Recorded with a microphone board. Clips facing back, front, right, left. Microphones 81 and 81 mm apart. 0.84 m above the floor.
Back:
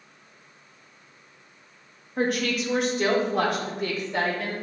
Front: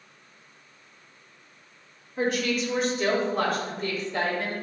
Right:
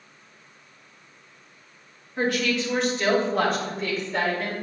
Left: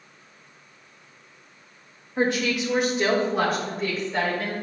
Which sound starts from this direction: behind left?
A woman speaking, at 2.2 s.